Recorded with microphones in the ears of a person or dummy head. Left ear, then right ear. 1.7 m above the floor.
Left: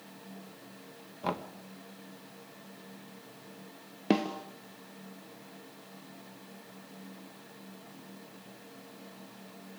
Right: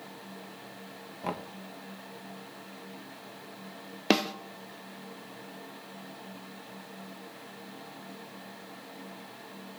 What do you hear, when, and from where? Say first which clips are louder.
1.2 s knocking: left 1 dB; 15° left (ahead or behind), 1.7 m
4.1 s a snare drum: right 3 dB; 40° right (ahead or behind), 1.2 m